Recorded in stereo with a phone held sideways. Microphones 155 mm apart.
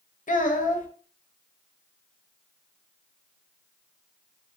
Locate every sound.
0.3 s a child speaking: 60° left (ahead or behind), 0.5 m